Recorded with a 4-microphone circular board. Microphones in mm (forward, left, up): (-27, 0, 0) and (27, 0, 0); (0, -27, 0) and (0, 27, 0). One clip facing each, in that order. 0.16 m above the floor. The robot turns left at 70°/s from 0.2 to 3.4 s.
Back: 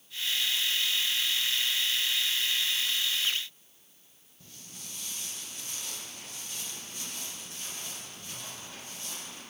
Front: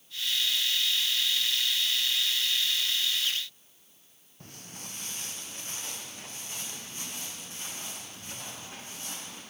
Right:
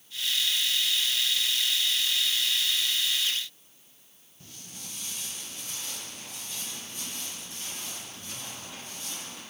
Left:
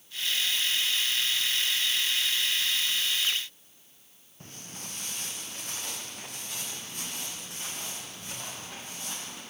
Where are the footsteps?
40° left, 1.3 m; by 9.4 s 65° left, 7 m.